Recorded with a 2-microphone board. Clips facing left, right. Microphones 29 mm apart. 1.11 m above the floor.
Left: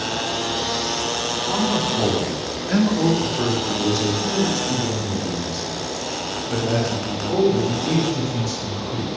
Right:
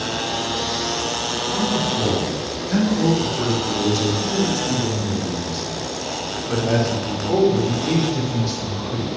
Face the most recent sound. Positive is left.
turn(degrees=-40)  # may be behind; listen again after turning